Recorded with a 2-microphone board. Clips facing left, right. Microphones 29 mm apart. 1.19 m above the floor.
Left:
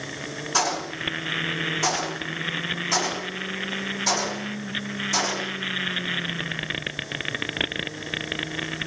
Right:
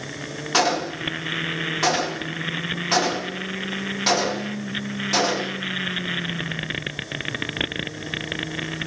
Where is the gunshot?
50° right (ahead or behind), 1.2 m.